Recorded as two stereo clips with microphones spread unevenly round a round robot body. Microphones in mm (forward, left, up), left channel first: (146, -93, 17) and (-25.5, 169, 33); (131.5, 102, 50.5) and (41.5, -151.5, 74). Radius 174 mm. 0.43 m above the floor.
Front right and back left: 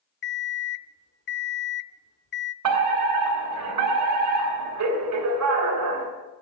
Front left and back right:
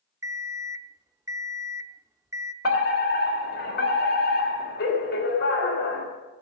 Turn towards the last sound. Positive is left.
turn(degrees=110)